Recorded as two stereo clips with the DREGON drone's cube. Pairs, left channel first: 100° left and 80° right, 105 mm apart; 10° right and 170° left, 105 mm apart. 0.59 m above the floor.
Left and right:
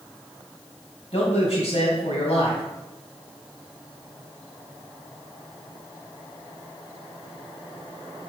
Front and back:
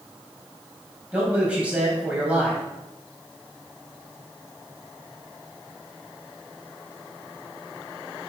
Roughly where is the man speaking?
Left.